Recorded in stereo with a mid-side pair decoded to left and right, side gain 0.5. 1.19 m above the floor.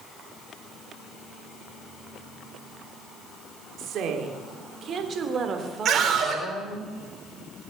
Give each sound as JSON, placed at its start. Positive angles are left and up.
{"t": 3.8, "sound": "a woman speaking", "azimuth_deg": -65, "distance_m": 3.0}
{"t": 5.8, "sound": "a scream", "azimuth_deg": -60, "distance_m": 5.0}